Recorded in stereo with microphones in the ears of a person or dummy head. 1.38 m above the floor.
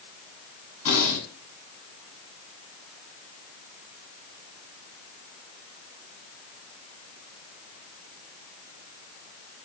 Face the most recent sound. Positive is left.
turn(degrees=80)